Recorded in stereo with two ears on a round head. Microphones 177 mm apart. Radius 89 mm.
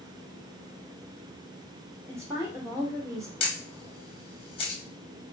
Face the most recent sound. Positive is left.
turn(degrees=25)  # may be behind; listen again after turning